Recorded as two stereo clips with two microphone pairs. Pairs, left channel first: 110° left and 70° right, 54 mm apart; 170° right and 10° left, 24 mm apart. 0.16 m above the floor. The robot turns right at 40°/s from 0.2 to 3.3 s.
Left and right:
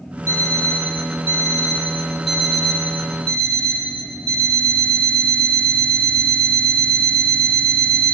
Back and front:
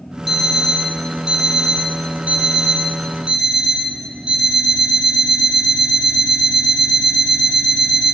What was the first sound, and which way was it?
An alarm clock, 60° right.